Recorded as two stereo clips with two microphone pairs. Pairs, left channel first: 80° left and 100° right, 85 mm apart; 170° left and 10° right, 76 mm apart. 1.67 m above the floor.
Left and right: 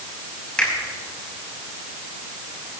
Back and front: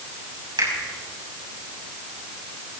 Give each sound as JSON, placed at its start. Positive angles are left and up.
{"t": 0.6, "sound": "a finger snap", "azimuth_deg": 5, "distance_m": 5.5}